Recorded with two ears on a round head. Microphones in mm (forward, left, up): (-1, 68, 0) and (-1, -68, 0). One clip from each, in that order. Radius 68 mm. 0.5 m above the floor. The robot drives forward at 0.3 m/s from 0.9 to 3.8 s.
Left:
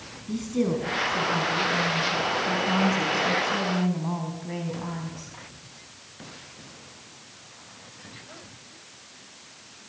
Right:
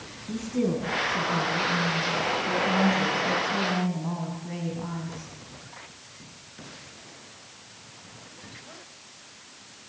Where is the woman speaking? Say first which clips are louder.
Left 1 dB; 20° left (ahead or behind), 4 m; by 5.3 s 25° left (ahead or behind), 3.5 m.